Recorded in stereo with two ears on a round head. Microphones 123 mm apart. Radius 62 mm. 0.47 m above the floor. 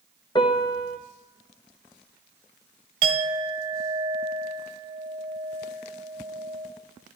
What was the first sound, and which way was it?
A piano, 30° left (ahead or behind).